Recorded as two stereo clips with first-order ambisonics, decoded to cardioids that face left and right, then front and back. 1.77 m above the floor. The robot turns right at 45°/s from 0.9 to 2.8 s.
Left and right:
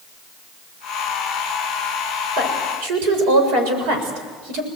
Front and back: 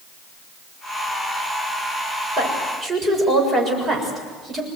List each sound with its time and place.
2.4 s a woman speaking: 125° right, 7 m; by 4.7 s 105° right, 7 m